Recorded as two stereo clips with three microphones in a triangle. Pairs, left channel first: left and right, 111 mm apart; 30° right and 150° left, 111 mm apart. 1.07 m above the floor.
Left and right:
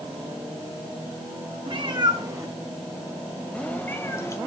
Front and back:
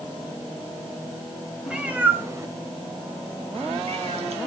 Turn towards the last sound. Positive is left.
turn(degrees=150)